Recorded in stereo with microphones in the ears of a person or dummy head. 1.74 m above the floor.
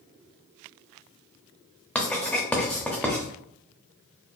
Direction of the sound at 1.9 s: 5° left (ahead or behind).